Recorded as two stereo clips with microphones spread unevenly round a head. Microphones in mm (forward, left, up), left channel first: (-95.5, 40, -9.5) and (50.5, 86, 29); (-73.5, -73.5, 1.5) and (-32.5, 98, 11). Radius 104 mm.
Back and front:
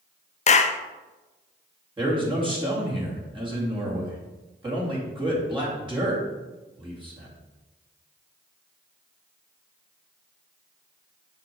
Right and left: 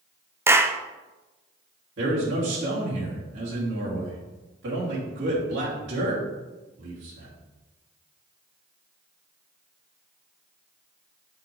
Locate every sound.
0.5 s a clap: 150° left, 0.5 m
2.0 s a man speaking: 70° left, 2.5 m